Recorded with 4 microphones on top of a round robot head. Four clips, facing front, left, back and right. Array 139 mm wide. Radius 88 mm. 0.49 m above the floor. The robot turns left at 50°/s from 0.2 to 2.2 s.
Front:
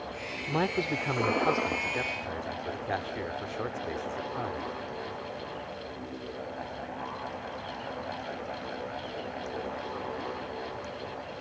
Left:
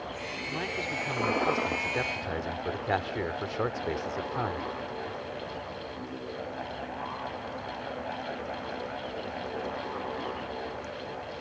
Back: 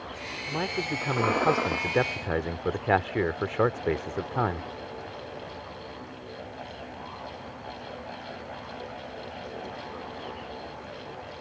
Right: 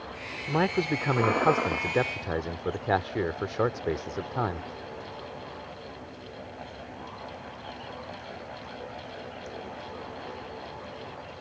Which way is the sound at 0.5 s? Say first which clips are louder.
Right 10 dB, front 2 dB; 70° right.